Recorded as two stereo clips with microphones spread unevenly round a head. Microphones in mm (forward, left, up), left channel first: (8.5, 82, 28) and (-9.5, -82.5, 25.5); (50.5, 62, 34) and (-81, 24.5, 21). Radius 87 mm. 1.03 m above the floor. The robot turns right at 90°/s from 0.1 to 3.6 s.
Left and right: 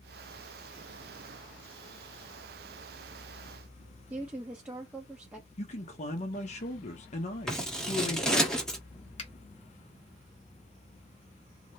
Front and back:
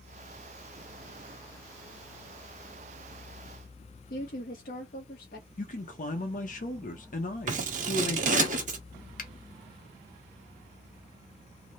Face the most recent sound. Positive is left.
turn(degrees=25)